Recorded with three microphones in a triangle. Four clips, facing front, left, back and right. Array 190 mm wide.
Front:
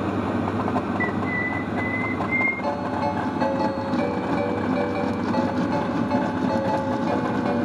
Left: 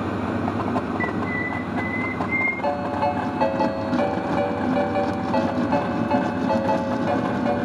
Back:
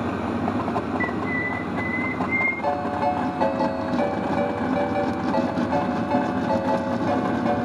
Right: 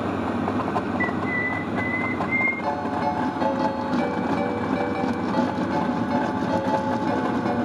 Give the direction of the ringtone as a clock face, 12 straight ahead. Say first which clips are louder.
Left 4 dB, back 4 dB; 8 o'clock.